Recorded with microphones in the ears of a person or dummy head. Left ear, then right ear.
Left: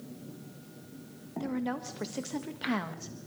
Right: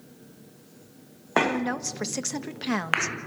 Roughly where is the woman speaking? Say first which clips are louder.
Right 8 dB; right.